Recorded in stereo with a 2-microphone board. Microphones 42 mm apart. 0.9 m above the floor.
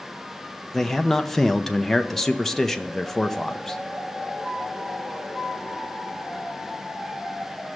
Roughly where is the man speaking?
Centre.